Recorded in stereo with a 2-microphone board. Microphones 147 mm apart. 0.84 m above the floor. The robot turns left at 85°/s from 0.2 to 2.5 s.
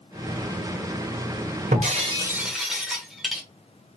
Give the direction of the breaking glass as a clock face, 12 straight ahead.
4 o'clock.